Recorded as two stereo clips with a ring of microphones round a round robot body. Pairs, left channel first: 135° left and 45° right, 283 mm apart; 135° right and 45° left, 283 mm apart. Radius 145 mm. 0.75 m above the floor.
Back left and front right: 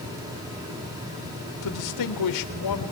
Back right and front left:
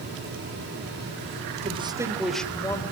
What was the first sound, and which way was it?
A man speaking, 115° left.